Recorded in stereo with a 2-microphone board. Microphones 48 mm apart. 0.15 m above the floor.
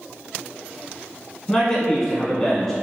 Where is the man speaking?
15° left (ahead or behind), 1.1 m.